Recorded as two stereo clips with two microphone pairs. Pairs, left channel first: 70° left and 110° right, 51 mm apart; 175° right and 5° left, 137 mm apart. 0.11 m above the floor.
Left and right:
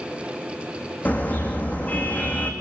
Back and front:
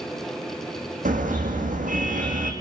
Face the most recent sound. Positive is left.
turn(degrees=15)